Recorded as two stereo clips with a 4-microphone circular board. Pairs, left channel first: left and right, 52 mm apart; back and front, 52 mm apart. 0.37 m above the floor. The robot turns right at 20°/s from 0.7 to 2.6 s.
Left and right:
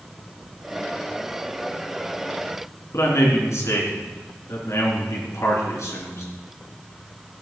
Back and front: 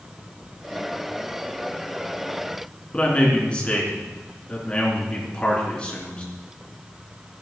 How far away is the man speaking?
About 4.5 m.